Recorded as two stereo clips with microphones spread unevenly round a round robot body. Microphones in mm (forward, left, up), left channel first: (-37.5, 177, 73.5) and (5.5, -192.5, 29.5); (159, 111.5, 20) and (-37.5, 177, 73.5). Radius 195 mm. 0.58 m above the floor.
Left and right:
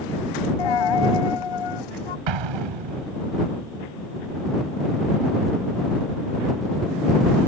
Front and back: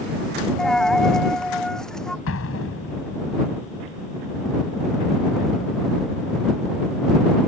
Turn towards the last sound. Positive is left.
turn(degrees=-60)